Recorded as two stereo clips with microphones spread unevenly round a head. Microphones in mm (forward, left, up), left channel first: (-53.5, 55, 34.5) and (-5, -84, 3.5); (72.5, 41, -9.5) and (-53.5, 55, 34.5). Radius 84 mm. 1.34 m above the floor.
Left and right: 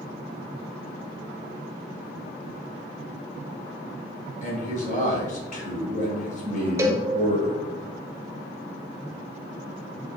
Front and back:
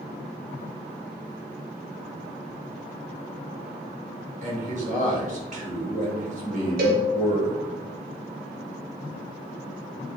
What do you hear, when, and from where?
4.4 s a man speaking: 145° left, 3 m
6.8 s a cowbell: 140° right, 1.1 m